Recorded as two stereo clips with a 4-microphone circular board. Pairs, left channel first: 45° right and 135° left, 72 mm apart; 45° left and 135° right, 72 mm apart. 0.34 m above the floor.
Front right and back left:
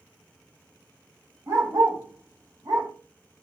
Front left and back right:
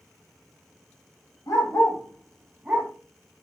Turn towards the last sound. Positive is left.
turn(degrees=165)